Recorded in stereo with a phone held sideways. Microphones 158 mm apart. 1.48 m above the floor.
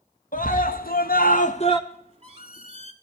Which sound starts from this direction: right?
A squeak, at 1.9 s.